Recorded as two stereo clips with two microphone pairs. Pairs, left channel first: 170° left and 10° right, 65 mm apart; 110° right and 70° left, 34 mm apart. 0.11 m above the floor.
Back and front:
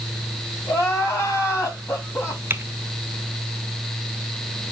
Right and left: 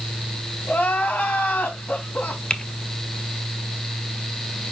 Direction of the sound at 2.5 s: 55° right.